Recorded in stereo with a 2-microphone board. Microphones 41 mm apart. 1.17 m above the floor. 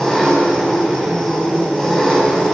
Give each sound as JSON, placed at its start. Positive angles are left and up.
{"t": 0.0, "sound": "an engine running", "side_deg": 15, "distance_m": 6.0}